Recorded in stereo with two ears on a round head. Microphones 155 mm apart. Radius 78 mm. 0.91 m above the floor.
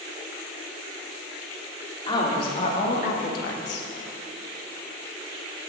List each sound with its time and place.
2.1 s a woman speaking: 25° left (ahead or behind), 1.6 m; by 3.9 s 75° left (ahead or behind), 1.0 m